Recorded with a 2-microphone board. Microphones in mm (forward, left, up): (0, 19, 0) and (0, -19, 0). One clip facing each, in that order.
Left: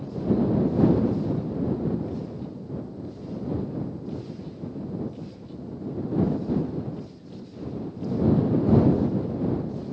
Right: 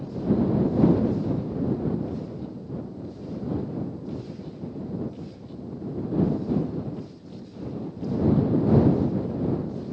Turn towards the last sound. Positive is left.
No sound to turn to.